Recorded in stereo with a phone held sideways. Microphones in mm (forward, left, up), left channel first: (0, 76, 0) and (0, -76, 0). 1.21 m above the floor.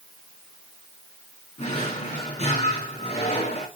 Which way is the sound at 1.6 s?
45° left (ahead or behind).